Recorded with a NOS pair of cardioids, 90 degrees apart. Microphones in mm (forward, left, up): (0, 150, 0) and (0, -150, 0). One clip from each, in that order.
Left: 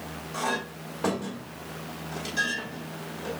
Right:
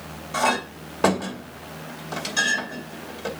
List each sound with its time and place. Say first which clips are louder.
0.3 s a clink: right 7 dB; 55° right, 2.5 m